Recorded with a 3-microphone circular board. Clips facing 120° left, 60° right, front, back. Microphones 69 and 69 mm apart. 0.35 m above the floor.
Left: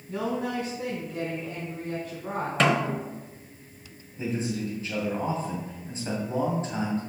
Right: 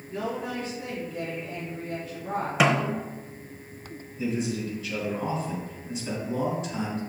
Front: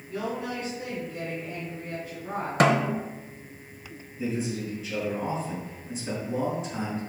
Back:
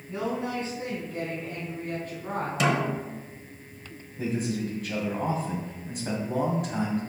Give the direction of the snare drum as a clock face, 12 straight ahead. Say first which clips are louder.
Even, front 5 dB; 11 o'clock.